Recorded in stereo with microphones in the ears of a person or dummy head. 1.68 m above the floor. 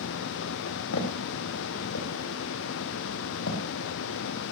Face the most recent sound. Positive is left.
turn(degrees=70)  # may be behind; listen again after turning